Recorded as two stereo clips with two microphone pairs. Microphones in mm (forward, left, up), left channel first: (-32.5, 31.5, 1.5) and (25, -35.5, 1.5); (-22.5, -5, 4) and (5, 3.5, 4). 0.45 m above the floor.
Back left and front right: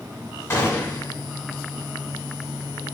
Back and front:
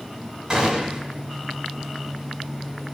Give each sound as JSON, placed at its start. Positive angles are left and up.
{"t": 0.5, "sound": "a gunshot", "azimuth_deg": 75, "distance_m": 1.1}